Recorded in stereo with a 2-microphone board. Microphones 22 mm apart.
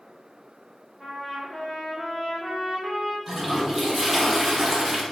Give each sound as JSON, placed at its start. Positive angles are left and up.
{"t": 1.0, "sound": "a trumpet", "side_deg": 0, "distance_m": 2.5}
{"t": 3.3, "sound": "a toilet flushing", "side_deg": -10, "distance_m": 1.6}